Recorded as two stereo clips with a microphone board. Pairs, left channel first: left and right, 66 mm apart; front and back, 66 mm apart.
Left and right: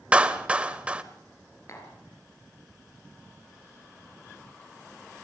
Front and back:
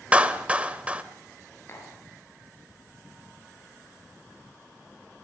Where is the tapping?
55° left, 5 m.